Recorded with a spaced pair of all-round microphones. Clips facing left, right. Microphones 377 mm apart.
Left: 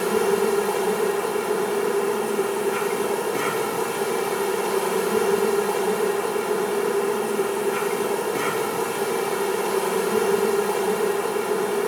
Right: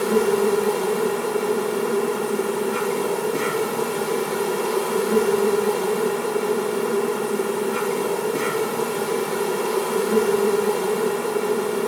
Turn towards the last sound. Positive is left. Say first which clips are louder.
# right 2 dB
turn(degrees=-50)  # may be behind; listen again after turning